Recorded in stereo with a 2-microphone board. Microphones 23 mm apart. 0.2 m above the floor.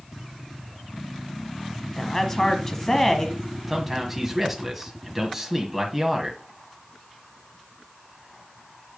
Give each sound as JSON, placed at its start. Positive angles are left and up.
{"t": 2.0, "sound": "a woman speaking", "side_deg": 25, "distance_m": 1.1}
{"t": 3.7, "sound": "a man speaking", "side_deg": -5, "distance_m": 1.6}